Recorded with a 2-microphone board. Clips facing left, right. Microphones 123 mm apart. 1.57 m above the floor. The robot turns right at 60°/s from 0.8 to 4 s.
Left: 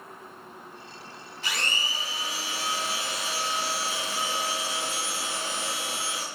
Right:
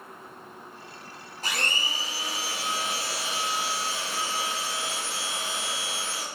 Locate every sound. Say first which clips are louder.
1.4 s a blender: right 1 dB; 140° right, 0.7 m; by 6.2 s 15° left, 0.7 m